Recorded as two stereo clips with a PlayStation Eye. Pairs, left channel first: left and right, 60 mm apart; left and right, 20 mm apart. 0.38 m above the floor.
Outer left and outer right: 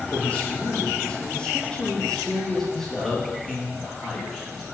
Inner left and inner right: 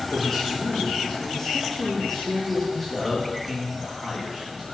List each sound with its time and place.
0.1 s a man speaking: 25° left (ahead or behind), 9 m; by 4.7 s 5° right (ahead or behind), 10.5 m